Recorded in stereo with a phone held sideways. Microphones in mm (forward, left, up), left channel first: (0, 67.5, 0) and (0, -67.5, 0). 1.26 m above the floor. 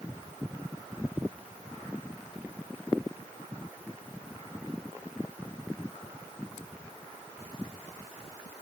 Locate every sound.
Only background noise.